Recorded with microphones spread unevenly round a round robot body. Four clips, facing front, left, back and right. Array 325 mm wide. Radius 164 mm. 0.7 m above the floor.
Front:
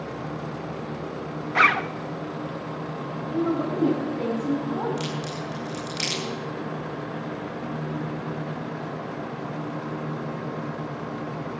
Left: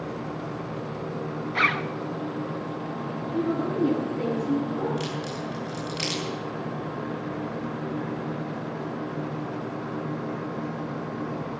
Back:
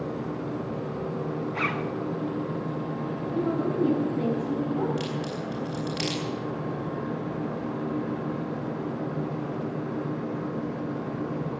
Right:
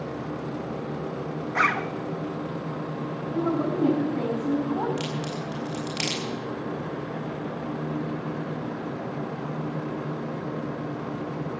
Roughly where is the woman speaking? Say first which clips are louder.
Right 1 dB, front 2 dB; ahead right.